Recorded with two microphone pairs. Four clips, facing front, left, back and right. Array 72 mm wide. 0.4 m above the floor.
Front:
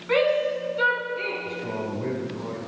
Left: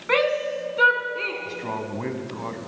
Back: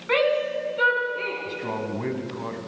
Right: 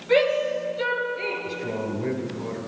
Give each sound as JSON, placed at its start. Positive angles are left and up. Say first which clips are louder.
{"t": 0.1, "sound": "a shout", "louder": "right 2 dB, even", "azimuth_deg": 105, "distance_m": 3.5}
{"t": 1.4, "sound": "a man speaking", "louder": "right 1 dB, back 1 dB", "azimuth_deg": 120, "distance_m": 2.5}